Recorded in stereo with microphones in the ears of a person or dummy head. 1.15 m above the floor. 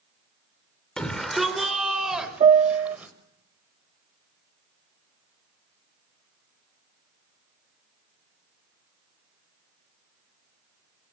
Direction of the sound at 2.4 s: 30° right (ahead or behind).